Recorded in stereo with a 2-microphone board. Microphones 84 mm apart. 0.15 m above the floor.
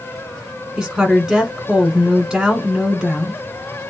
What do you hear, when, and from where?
0.8 s a woman speaking: 10° right (ahead or behind), 1.5 m